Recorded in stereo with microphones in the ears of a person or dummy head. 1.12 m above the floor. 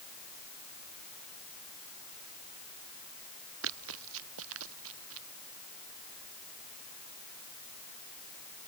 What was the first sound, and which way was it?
Running footsteps, 80° right.